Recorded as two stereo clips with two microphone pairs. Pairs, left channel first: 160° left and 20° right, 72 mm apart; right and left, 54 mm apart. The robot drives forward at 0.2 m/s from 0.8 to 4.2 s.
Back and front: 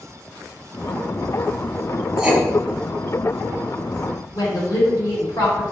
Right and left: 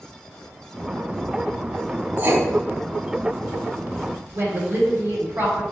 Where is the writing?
60° left, 1.8 m; by 2.4 s 65° left, 1.8 m.